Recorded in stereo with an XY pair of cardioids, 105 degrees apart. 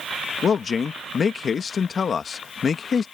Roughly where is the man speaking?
Ahead left.